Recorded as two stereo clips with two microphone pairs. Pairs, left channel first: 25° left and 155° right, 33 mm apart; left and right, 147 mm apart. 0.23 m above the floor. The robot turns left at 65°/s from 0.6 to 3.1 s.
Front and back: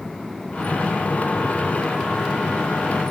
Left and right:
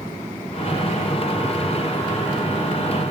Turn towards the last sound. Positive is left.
No sound to turn to.